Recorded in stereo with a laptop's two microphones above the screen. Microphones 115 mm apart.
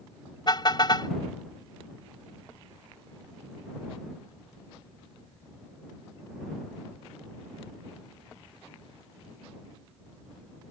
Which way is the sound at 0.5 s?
40° left (ahead or behind).